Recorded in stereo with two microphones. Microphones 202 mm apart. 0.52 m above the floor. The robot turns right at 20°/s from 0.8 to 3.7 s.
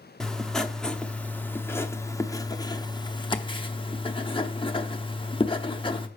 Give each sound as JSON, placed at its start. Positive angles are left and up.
{"t": 0.2, "sound": "writing", "side_deg": 5, "distance_m": 0.7}